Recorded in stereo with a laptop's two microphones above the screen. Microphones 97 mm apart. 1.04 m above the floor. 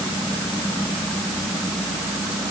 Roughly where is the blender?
I don't hear a blender.